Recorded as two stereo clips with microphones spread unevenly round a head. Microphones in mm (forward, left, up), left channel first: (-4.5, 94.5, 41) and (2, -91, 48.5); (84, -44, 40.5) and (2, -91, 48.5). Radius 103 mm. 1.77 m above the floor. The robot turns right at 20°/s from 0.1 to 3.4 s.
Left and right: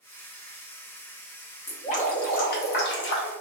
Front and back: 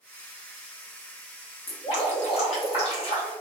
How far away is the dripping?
About 0.6 m.